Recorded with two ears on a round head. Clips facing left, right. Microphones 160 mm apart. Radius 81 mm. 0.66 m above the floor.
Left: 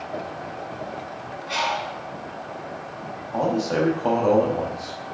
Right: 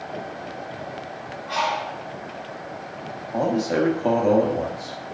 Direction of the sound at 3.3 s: 10° right (ahead or behind).